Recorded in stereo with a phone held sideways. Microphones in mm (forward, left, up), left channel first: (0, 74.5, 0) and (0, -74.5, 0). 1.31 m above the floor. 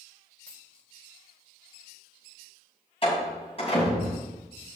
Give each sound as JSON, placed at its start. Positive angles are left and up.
{"t": 0.5, "sound": "a dropped coin", "side_deg": 10, "distance_m": 2.0}
{"t": 3.0, "sound": "a door slam", "side_deg": 35, "distance_m": 7.0}